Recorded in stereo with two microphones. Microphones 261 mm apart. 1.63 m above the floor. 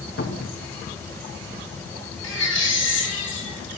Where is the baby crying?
70° left (ahead or behind), 4 m.